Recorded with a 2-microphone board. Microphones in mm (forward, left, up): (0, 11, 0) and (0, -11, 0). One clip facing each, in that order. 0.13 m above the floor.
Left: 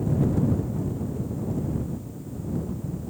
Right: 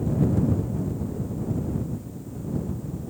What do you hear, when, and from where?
Only background noise.